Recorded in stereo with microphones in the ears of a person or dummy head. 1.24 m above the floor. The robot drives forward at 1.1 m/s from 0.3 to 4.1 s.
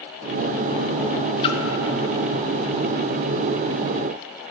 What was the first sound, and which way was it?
A splash, 35° left (ahead or behind).